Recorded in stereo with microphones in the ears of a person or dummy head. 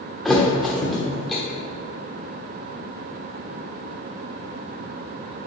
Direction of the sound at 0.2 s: 5° left (ahead or behind).